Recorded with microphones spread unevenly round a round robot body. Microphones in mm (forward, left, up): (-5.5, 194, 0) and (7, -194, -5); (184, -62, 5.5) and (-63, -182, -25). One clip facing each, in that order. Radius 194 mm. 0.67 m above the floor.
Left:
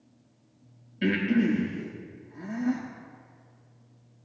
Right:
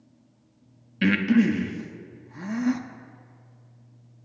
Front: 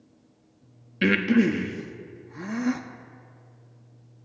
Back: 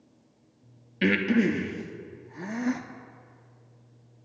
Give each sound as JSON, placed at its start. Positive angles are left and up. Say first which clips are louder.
{"t": 1.0, "sound": "breathing", "louder": "right 4 dB, front 3 dB", "azimuth_deg": -55, "distance_m": 0.9}